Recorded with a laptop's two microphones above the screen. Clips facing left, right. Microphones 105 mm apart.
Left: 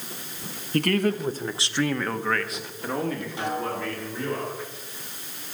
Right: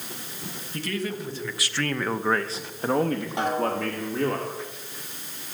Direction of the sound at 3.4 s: 70° right (ahead or behind).